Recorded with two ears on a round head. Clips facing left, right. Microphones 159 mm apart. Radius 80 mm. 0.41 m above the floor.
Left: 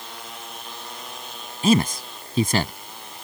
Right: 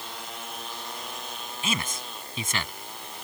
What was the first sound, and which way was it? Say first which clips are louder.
A man speaking: left 15 dB; 35° left (ahead or behind).